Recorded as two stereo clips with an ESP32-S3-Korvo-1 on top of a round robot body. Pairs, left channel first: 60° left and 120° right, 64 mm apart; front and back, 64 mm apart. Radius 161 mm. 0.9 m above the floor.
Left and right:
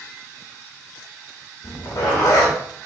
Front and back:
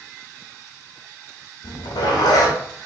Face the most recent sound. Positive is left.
turn(degrees=15)